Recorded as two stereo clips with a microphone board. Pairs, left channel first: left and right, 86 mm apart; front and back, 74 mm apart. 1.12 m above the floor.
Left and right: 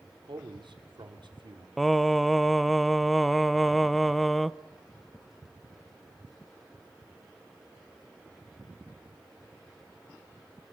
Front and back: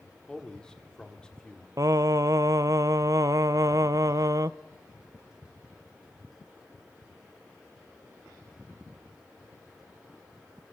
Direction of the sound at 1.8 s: Straight behind.